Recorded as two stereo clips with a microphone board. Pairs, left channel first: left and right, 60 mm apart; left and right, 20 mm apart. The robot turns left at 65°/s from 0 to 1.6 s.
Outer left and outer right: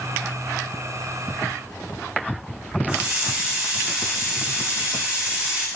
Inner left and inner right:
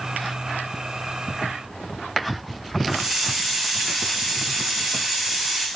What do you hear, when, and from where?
2.9 s a hiss: 15° right (ahead or behind), 5 m